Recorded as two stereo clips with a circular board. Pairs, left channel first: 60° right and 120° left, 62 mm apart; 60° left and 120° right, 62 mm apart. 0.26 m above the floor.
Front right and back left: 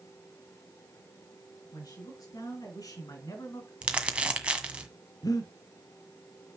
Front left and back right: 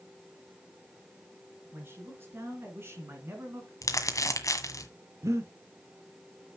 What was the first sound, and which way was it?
A man speaking, 70° right.